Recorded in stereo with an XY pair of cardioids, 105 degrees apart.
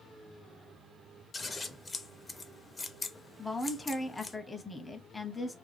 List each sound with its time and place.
1.3 s scissors: 30° left, 0.5 m
3.4 s a woman speaking: 15° left, 0.6 m